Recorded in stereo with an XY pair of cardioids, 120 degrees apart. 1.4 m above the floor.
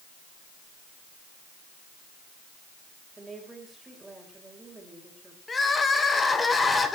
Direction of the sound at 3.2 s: 15° right.